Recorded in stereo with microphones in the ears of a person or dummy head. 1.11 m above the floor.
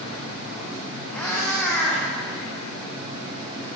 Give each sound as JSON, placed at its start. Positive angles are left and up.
{"t": 1.1, "sound": "a cat meowing", "side_deg": 5, "distance_m": 8.5}